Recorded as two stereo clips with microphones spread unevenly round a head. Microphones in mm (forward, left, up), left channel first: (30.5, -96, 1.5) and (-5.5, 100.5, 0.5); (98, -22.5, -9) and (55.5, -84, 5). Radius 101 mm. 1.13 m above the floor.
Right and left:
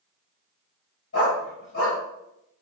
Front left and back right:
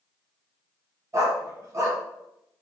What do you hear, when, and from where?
1.1 s a dog barking: 90° right, 1.7 m